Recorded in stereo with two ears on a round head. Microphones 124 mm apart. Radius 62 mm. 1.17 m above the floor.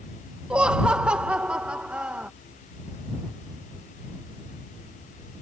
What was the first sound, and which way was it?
Laughter, 10° right (ahead or behind).